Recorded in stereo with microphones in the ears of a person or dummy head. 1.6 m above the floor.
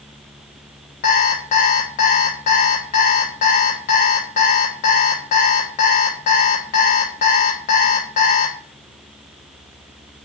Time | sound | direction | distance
1.0 | an alarm clock | 25° left (ahead or behind) | 0.7 m